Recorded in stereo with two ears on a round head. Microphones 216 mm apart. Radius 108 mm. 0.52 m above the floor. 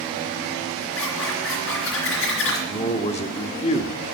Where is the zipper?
60° left (ahead or behind), 3 m.